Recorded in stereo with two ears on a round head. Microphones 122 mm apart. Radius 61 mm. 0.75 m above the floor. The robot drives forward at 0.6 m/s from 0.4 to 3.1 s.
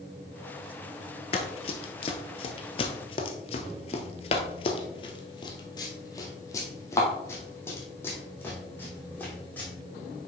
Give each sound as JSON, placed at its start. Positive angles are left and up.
{"t": 1.3, "sound": "running footsteps", "side_deg": 45, "distance_m": 1.0}